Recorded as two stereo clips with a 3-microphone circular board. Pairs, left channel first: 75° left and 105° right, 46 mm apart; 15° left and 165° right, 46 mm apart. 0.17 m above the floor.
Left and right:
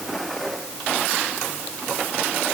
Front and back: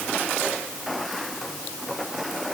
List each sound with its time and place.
Only background noise.